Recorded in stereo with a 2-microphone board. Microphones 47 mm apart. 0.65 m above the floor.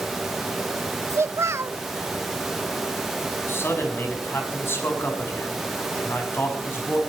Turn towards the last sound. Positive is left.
turn(degrees=55)  # may be behind; listen again after turning